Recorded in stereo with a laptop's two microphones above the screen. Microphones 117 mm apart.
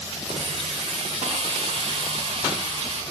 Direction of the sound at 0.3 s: 65° right (ahead or behind).